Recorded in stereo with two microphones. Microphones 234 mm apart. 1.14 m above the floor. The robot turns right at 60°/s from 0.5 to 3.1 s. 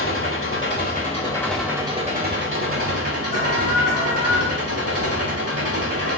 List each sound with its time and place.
0.0 s an engine running: 115° left, 2.5 m; by 6.2 s 90° right, 2.5 m
3.3 s an alarm: 30° right (ahead or behind), 4 m